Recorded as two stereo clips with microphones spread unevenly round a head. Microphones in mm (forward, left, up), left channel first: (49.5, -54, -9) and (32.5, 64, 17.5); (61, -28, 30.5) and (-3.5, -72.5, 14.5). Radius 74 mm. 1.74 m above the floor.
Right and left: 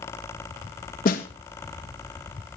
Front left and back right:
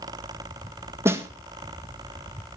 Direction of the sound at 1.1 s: 85° right.